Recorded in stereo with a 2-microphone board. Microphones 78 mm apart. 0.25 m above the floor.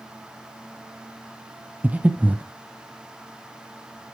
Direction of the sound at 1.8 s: 20° right (ahead or behind).